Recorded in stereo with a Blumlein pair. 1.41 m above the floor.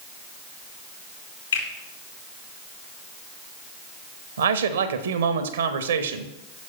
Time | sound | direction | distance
1.5 | a finger snap | 70° left | 3.5 m
4.4 | a man speaking | 65° right | 0.9 m